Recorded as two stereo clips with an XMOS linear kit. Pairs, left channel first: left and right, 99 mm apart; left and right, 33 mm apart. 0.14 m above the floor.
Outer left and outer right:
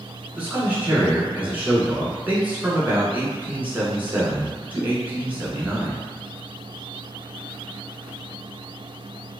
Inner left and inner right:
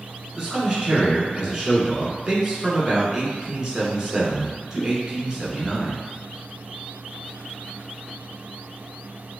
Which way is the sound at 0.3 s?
15° right (ahead or behind).